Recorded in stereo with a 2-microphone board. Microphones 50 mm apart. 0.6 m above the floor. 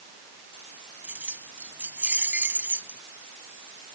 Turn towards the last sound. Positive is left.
turn(degrees=-45)  # may be behind; listen again after turning